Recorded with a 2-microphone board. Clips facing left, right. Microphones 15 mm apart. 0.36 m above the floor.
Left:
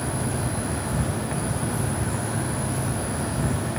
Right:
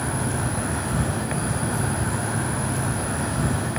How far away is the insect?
About 0.8 m.